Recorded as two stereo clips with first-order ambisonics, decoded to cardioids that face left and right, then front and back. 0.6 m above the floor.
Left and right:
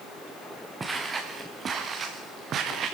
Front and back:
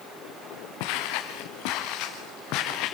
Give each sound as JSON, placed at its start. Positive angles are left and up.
{"t": 0.8, "sound": "footsteps", "azimuth_deg": -10, "distance_m": 2.5}